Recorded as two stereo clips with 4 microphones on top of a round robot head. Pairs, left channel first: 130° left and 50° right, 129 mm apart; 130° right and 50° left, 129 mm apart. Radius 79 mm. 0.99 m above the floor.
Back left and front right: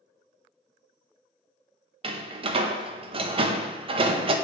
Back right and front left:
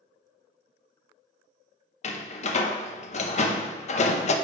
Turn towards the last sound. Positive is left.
turn(degrees=-95)